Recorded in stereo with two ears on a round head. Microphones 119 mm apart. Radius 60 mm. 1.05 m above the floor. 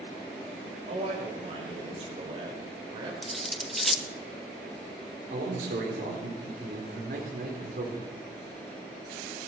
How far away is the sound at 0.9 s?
About 4.5 m.